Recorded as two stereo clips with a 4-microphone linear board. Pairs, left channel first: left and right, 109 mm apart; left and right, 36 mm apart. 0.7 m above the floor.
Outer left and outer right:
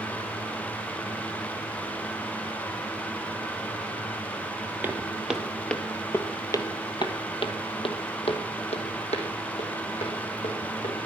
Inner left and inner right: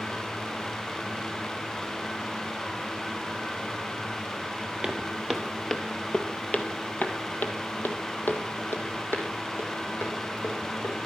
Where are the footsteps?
15° right (ahead or behind), 1.3 m; by 11.0 s 80° left, 3.5 m.